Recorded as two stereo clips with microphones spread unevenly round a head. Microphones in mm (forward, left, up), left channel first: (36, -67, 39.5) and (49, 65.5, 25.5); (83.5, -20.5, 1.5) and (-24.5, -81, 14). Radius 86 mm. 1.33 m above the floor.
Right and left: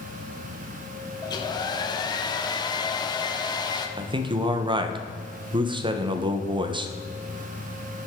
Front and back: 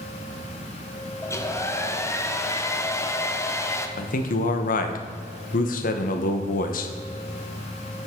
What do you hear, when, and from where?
1.2 s a hair dryer: 35° right, 1.1 m
4.0 s a man speaking: 30° left, 1.1 m